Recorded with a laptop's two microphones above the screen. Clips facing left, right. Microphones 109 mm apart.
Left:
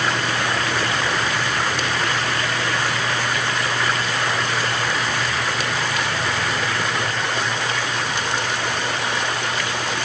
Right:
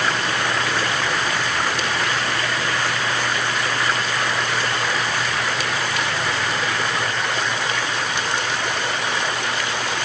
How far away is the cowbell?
No cowbell in this recording.